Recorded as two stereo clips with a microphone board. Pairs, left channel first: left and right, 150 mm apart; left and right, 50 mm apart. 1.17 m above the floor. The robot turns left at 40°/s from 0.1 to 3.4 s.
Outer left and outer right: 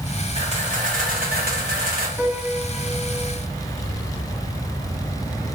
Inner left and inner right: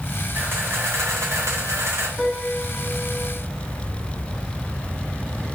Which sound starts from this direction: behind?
A piano, at 2.2 s.